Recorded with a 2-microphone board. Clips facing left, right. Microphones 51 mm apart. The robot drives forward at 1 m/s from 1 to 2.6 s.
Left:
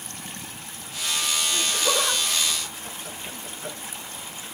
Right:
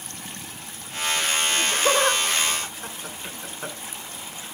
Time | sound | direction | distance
1.5 | laughter | 40° right (ahead or behind) | 2.5 m